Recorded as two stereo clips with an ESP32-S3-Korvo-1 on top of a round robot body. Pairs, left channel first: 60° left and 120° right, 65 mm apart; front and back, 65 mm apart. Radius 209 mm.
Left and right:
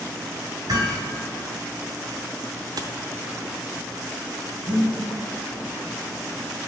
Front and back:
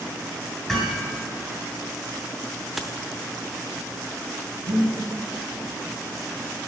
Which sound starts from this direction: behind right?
Breathing, at 4.7 s.